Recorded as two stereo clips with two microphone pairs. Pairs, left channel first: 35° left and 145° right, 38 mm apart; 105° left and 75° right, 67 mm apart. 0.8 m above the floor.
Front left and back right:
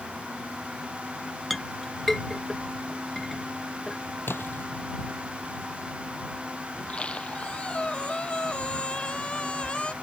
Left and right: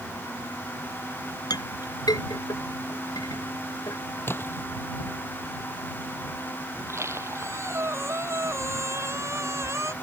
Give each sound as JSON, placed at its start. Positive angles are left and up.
{"t": 1.5, "sound": "a clink", "azimuth_deg": 125}
{"t": 4.3, "sound": "a splash", "azimuth_deg": 50}
{"t": 6.8, "sound": "a squeak", "azimuth_deg": -25}